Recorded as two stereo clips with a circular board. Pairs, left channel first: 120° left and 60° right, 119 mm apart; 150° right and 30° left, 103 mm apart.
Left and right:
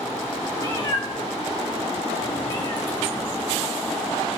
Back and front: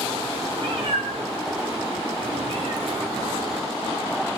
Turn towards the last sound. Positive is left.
turn(degrees=60)